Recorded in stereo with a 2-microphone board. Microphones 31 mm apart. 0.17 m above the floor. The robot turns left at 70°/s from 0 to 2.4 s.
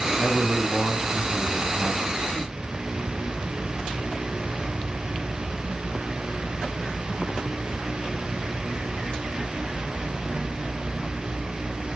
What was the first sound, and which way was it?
A man speaking, 10° right (ahead or behind).